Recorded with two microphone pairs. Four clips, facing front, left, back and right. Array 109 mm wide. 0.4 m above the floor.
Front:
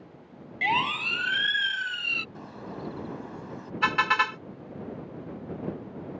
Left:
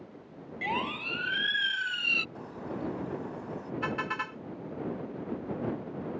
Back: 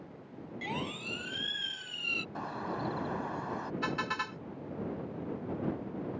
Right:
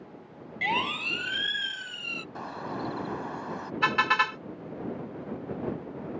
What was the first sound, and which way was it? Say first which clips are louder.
A siren: right 3 dB, front 12 dB; 20° right.